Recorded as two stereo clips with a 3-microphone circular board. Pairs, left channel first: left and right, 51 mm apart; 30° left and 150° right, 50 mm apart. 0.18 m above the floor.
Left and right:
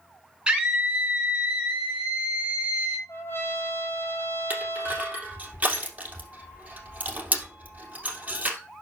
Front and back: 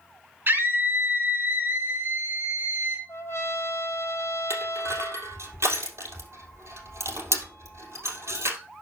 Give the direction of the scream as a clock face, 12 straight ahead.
5 o'clock.